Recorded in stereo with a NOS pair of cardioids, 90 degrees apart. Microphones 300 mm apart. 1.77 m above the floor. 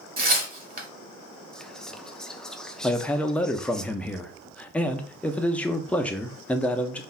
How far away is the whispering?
About 0.6 m.